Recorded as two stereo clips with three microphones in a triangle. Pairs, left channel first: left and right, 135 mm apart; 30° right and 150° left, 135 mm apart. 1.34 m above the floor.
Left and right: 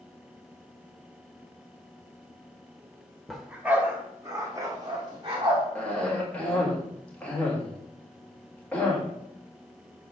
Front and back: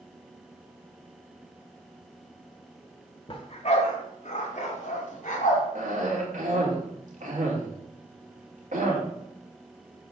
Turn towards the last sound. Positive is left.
turn(degrees=170)